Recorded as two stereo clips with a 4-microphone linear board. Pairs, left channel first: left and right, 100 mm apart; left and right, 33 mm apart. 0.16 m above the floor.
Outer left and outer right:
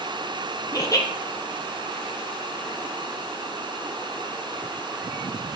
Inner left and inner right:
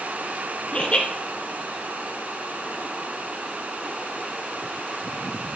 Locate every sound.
0.7 s laughter: 35° left (ahead or behind), 2.5 m